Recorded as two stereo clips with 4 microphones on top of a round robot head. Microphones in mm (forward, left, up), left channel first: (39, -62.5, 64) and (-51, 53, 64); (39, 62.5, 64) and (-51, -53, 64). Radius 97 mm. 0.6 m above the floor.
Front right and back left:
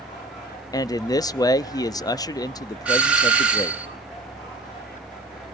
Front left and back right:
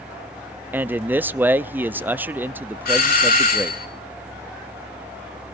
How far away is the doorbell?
About 3 m.